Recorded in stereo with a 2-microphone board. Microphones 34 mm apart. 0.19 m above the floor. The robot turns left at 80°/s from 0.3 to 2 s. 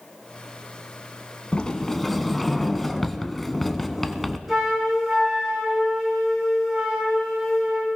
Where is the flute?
5° right (ahead or behind), 8.5 m.